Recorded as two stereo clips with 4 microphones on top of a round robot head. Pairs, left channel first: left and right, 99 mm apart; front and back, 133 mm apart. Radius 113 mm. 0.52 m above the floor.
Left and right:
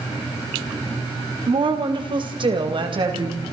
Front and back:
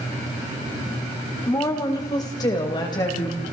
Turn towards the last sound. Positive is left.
turn(degrees=-60)